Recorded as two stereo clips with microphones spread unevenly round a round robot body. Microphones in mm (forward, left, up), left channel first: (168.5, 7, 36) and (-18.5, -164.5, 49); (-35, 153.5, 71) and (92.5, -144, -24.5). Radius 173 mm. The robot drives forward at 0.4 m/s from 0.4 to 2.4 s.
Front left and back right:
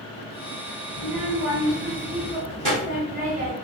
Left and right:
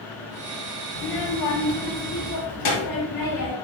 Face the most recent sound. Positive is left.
turn(degrees=150)